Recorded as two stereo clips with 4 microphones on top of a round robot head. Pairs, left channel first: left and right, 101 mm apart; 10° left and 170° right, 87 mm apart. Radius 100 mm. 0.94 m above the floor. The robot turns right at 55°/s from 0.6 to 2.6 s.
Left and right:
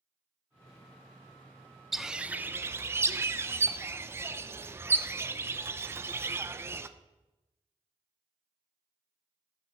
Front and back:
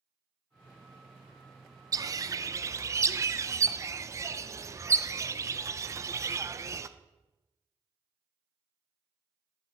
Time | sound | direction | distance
1.9 | a bird | straight behind | 0.7 m